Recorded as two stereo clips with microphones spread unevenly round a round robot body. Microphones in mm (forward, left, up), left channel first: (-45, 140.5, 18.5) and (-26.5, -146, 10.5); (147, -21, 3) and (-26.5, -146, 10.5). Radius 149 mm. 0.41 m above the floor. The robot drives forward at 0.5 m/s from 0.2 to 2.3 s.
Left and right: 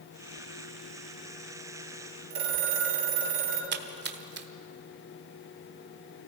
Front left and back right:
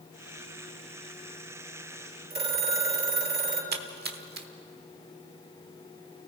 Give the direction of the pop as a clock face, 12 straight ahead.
No pop in this recording.